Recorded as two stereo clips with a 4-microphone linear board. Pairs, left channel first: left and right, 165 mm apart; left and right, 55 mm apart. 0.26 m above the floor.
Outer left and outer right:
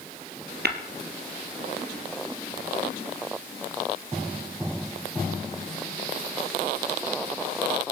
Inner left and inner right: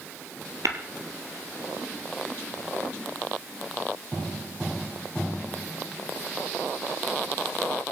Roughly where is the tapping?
Right.